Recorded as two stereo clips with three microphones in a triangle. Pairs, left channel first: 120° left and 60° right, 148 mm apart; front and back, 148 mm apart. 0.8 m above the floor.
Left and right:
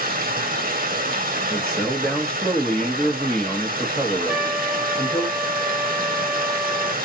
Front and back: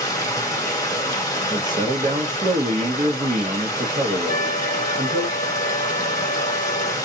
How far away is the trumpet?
About 0.6 m.